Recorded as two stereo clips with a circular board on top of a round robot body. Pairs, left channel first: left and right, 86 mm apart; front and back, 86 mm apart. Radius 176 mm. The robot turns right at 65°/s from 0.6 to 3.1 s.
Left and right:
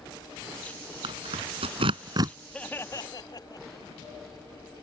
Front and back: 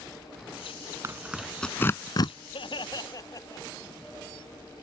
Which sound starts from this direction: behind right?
Tearing paper, at 1.0 s.